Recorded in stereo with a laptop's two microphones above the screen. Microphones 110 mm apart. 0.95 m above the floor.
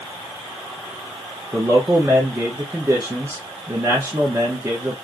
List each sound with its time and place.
1.5 s a man speaking: 25° right (ahead or behind), 0.7 m